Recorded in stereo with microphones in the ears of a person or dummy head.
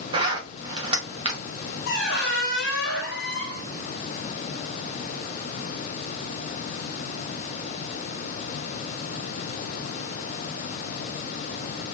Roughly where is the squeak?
Left.